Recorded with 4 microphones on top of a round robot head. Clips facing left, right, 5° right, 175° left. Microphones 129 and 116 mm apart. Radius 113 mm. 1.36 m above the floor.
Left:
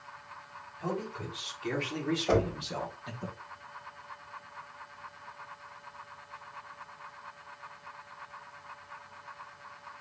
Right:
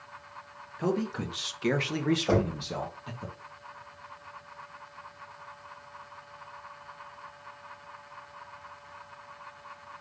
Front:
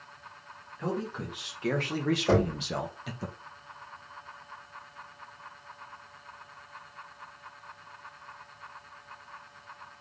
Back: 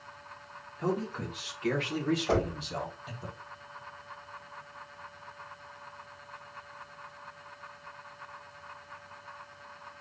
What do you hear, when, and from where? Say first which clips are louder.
0.8 s a man speaking: right 6 dB, back 1 dB; 95° right, 1.1 m; by 3.3 s straight ahead, 1.0 m
2.3 s knocking: left 2 dB, front 7 dB; 10° right, 2.5 m